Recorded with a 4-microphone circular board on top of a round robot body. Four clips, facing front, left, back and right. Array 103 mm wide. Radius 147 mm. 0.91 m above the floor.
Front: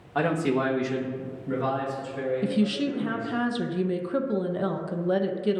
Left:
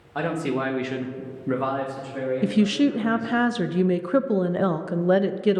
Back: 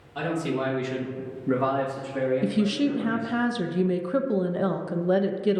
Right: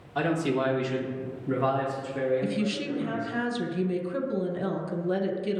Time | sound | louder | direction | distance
0.1 | a man speaking | left 1 dB, front 3 dB | 35° left | 1.9 m
2.4 | a woman speaking | left 8 dB, back 1 dB | 95° left | 0.6 m